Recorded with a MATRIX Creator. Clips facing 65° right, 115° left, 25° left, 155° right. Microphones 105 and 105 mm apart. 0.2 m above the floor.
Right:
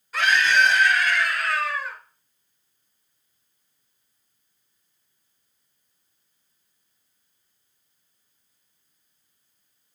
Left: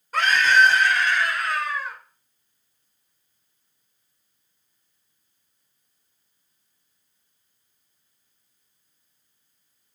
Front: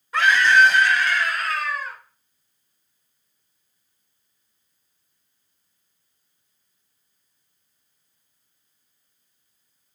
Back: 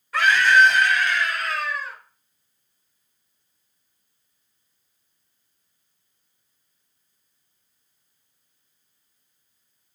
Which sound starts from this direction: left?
A scream, at 0.1 s.